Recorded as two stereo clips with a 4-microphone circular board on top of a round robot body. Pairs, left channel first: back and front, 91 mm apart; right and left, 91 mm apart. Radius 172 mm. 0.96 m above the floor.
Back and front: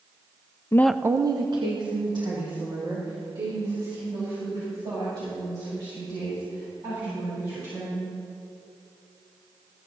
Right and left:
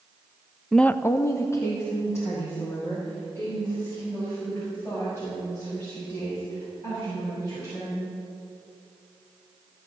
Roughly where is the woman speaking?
Behind.